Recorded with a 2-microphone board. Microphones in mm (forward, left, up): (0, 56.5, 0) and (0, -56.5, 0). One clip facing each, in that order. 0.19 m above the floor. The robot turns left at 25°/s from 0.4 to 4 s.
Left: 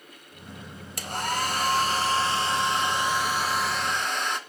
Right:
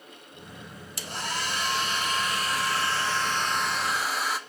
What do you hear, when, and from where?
1.0 s a hair dryer: 70° left, 0.8 m; by 4.4 s 5° right, 0.8 m